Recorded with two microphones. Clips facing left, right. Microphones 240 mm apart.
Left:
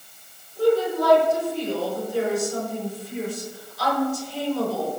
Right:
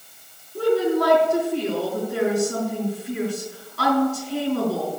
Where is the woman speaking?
70° right (ahead or behind), 5.5 m.